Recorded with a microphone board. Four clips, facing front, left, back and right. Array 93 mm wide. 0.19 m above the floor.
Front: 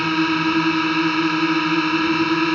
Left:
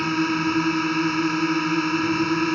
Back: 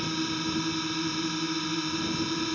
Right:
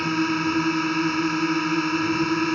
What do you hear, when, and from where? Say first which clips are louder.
0.0 s a drone: left 1 dB, front 12 dB; straight ahead